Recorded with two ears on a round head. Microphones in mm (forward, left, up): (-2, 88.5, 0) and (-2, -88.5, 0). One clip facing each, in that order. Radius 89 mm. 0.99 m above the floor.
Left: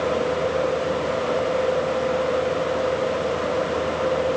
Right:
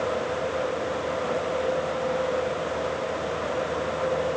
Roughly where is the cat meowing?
I don't hear a cat meowing.